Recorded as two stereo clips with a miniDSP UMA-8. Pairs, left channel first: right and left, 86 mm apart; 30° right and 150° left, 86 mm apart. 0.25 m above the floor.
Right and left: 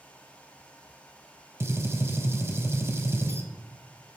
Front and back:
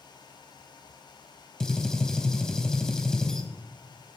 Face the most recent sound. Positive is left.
turn(degrees=50)